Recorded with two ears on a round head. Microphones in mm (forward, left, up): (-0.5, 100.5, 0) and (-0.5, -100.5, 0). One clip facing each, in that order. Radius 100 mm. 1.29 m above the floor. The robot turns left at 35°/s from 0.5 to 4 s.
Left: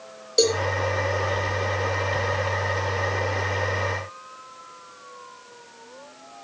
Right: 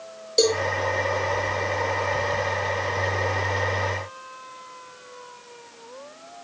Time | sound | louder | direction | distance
0.4 | a cowbell | even | 5° left (ahead or behind) | 3.5 m